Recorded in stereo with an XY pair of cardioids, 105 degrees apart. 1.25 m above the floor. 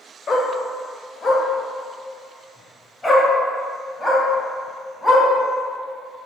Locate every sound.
0.3 s a dog barking: 45° left, 2 m; by 5.2 s 5° left, 4.5 m